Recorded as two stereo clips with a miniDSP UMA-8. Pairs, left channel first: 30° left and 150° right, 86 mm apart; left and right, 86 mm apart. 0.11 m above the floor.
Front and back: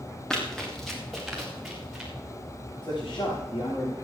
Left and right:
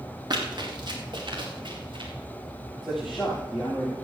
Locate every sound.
0.3 s running footsteps: 55° right, 3.5 m; by 2.1 s 65° right, 5.5 m
2.8 s a man speaking: straight ahead, 8.5 m